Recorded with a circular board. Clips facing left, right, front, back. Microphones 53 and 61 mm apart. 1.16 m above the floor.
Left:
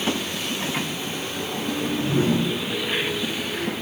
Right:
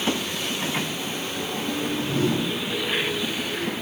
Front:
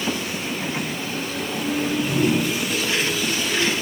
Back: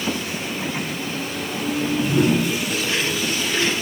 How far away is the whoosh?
About 9 m.